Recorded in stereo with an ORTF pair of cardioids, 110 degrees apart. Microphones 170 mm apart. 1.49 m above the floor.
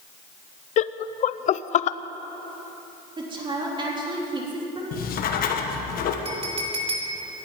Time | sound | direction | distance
0.8 | laughter | 45° left | 0.6 m
3.2 | a woman speaking | 30° right | 3 m
4.9 | writing | 60° left | 1.4 m
6.2 | a clink | 35° right | 2 m